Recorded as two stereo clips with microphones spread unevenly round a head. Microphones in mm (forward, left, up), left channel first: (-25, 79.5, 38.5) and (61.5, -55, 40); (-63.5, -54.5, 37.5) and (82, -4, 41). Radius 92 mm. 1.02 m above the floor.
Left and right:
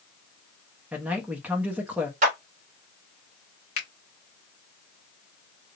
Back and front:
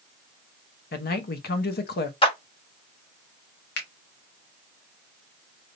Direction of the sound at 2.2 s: 105° right.